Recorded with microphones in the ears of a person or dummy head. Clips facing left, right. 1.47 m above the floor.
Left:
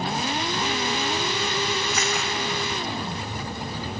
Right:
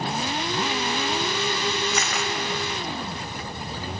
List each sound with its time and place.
1.9 s a camera shutter: 55° right (ahead or behind), 0.6 m